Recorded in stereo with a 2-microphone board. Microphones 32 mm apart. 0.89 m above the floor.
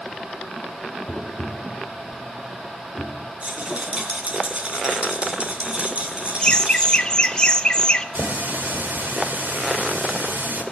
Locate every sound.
1.1 s tapping: 20° left (ahead or behind), 0.7 m
3.4 s a rattle: 40° right (ahead or behind), 3 m
6.4 s laughter: 30° left (ahead or behind), 0.6 m
8.2 s a running tap: 90° right, 2 m